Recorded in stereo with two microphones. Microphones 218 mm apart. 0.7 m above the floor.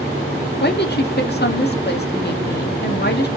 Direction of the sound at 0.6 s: 50° left (ahead or behind).